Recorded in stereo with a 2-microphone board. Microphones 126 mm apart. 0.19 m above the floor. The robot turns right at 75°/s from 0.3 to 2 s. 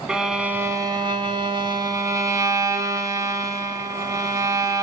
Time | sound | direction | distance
0.1 | a violin | 170° right | 0.6 m